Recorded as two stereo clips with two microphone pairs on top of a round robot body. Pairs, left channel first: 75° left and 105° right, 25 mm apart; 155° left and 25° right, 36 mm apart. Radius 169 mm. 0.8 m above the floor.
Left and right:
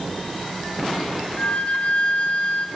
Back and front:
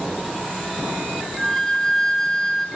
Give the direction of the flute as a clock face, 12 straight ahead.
10 o'clock.